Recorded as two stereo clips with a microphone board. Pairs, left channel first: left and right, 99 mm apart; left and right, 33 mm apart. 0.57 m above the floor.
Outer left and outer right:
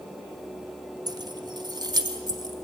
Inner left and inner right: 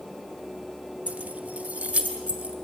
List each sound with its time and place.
1.1 s keys jangling: 40° right (ahead or behind), 0.5 m